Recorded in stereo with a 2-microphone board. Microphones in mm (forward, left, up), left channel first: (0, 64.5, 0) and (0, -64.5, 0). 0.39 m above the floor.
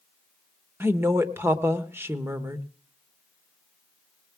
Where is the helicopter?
I don't hear a helicopter.